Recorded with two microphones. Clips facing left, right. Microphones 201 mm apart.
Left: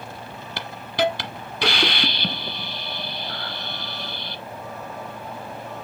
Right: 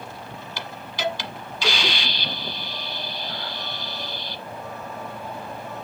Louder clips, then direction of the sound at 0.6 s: Left 8 dB; 60° left (ahead or behind).